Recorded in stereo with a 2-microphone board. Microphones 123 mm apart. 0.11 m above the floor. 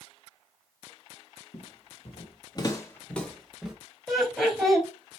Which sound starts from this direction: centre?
Laughter, at 4.1 s.